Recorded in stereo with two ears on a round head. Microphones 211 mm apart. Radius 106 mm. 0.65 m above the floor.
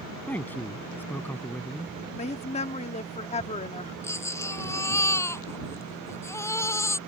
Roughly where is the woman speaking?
Left.